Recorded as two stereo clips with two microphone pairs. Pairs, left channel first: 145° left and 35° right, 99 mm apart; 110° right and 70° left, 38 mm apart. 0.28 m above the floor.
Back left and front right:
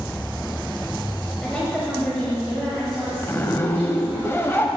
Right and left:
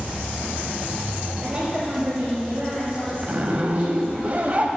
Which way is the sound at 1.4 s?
85° left.